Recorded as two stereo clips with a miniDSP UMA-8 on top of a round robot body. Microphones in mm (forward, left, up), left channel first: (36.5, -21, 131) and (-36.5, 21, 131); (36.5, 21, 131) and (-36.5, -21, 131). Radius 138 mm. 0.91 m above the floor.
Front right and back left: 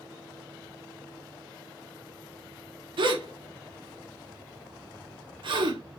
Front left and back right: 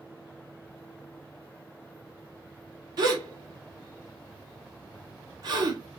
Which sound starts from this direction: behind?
A gasp, at 3.0 s.